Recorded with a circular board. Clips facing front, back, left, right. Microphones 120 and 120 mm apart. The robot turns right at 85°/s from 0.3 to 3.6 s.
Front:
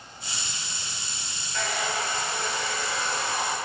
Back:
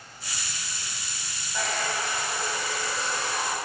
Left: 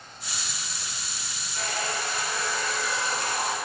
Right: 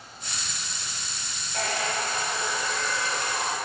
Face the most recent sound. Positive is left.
turn(degrees=75)